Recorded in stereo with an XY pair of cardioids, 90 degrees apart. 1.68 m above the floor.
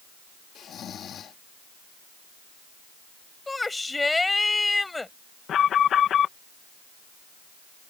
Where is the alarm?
70° left.